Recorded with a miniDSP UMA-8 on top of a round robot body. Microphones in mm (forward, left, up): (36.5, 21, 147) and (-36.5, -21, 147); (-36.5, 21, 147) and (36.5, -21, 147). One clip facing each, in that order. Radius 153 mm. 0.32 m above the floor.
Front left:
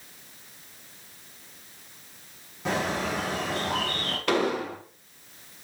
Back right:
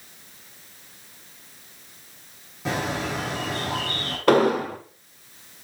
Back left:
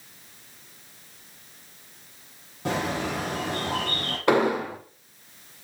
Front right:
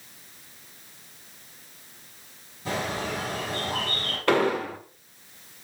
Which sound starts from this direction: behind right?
An explosion, at 4.3 s.